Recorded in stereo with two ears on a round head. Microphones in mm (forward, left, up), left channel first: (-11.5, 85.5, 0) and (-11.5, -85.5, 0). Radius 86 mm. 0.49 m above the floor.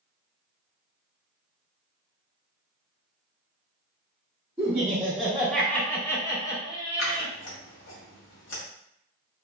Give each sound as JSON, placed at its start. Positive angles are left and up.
{"t": 4.6, "sound": "laughter", "side_deg": -10, "distance_m": 1.1}
{"t": 7.0, "sound": "scissors", "side_deg": 70, "distance_m": 1.9}